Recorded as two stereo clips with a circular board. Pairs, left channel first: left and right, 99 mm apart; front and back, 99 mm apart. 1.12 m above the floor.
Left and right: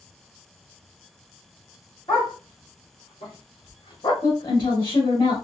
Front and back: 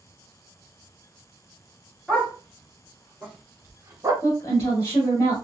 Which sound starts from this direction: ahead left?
A woman speaking, at 4.2 s.